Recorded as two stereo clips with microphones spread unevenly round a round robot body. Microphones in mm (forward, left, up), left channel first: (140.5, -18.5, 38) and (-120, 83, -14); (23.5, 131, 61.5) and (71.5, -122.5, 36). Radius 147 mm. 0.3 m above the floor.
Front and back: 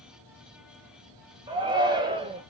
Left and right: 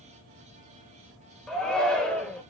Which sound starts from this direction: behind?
A shout, at 1.5 s.